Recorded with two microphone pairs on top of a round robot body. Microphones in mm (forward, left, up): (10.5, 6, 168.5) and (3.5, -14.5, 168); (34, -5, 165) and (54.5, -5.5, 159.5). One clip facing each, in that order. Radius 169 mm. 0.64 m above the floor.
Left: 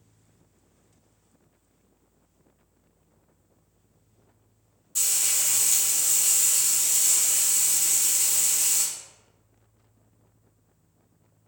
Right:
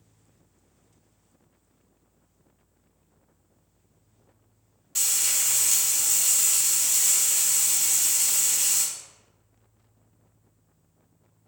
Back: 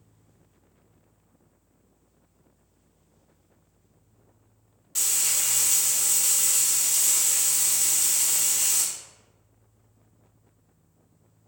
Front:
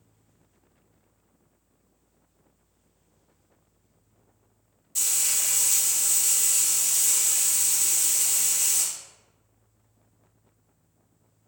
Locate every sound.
5.0 s frying: 135° right, 1.7 m